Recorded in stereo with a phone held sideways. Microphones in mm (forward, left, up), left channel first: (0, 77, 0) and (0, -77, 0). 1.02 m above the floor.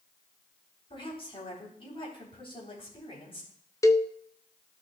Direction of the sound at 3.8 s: 20° left (ahead or behind).